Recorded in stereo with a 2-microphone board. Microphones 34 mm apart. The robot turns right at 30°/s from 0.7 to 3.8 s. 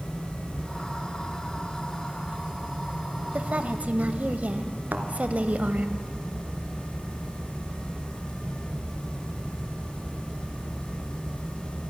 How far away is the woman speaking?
About 1.3 m.